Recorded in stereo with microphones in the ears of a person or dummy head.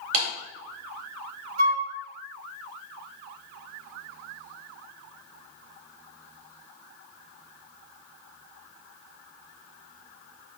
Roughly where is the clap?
Right.